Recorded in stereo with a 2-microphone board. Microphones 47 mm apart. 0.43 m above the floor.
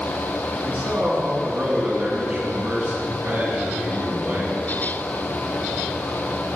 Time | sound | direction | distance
0.6 | a man speaking | 60° right (ahead or behind) | 3.5 m